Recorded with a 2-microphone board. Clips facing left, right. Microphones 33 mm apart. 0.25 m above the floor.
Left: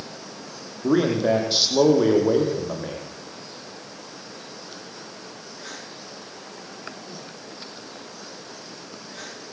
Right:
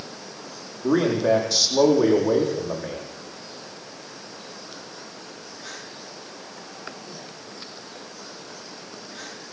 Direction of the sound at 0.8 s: 30° left (ahead or behind).